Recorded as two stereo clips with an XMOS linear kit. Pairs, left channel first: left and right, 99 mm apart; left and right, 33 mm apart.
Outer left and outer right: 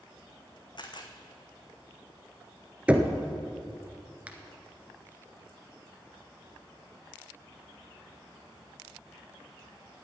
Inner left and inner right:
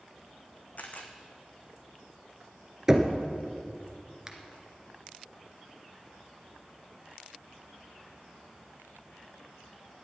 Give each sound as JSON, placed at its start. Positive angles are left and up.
{"t": 0.8, "sound": "a camera shutter", "side_deg": 55, "distance_m": 1.8}
{"t": 2.9, "sound": "knocking", "side_deg": -15, "distance_m": 1.2}
{"t": 4.3, "sound": "a finger snap", "side_deg": -15, "distance_m": 1.7}